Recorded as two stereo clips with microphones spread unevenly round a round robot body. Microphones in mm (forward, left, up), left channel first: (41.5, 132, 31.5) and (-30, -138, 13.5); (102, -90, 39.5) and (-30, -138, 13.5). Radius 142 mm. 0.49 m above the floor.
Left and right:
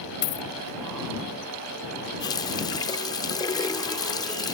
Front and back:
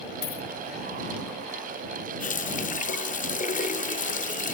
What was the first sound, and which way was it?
A dropped coin, 35° left.